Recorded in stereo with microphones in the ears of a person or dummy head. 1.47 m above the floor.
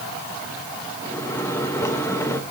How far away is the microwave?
About 1.0 m.